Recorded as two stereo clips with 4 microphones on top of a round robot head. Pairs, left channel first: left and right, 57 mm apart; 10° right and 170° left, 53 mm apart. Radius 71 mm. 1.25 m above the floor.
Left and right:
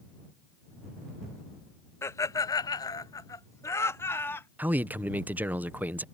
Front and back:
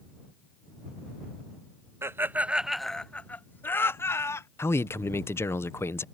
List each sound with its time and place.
2.0 s laughter: 130° left; by 4.5 s 30° left
4.6 s a man speaking: 35° right